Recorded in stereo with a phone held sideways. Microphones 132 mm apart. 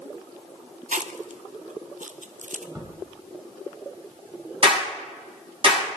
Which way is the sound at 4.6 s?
45° right (ahead or behind).